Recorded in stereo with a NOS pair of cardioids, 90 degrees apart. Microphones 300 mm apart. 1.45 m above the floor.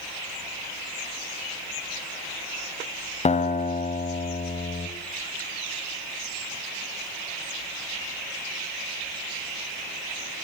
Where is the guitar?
25° left, 3.5 m.